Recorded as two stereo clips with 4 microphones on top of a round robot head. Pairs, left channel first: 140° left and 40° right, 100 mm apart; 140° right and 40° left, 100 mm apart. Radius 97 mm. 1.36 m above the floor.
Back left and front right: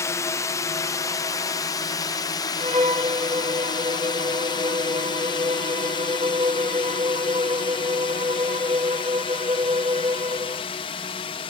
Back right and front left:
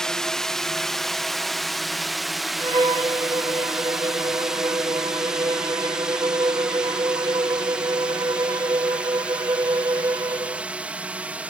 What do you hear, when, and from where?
0.0 s a drone: 145° left; by 11.5 s 120° left
2.6 s a violin: 5° right